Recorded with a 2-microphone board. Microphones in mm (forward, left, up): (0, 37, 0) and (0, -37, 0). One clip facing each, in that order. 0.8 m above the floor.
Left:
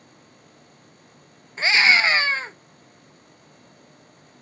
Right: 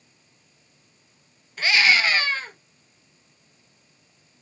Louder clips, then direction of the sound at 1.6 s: Left 2 dB; 30° left (ahead or behind).